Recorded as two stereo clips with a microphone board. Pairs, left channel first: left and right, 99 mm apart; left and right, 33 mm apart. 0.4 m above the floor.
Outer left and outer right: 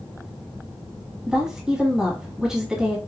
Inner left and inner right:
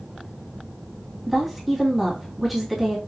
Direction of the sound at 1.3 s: 5° right (ahead or behind).